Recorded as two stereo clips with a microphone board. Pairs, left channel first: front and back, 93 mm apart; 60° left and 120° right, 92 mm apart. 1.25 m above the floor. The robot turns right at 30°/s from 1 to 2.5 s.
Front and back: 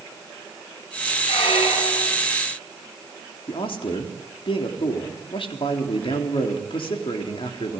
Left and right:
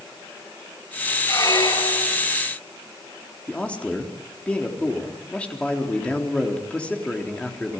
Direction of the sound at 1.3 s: Straight ahead.